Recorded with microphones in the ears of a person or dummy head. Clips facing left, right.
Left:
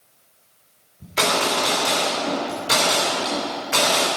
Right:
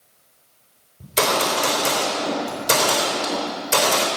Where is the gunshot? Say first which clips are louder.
Right 1 dB; 40° right (ahead or behind), 4 m.